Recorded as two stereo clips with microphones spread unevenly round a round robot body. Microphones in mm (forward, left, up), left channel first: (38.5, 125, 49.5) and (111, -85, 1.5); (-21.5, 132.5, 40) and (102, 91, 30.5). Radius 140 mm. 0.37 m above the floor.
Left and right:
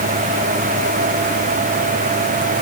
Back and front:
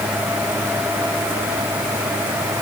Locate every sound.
Only background noise.